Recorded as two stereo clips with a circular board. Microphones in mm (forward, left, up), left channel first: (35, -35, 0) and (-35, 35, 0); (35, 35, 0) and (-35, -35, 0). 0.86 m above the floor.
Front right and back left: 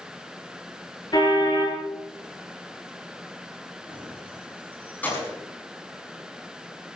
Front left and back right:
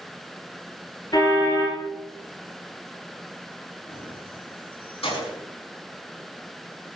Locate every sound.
1.1 s a car horn: straight ahead, 7.5 m
3.9 s keys jangling: 25° left, 5.5 m